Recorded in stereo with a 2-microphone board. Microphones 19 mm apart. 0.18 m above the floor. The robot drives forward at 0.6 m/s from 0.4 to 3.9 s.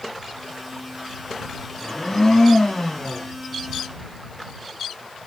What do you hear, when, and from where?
1.8 s a blender: 10° left (ahead or behind), 1.7 m